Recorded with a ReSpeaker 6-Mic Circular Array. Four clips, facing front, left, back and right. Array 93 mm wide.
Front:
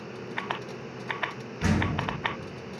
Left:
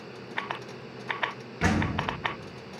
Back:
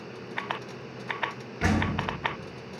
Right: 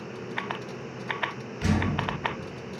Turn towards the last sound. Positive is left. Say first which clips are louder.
# even, back 1 dB
turn(degrees=115)